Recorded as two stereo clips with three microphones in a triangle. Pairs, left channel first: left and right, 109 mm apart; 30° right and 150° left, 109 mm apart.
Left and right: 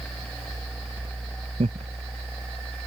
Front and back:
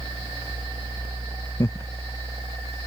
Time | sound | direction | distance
1.6 | laughter | 90° right | ?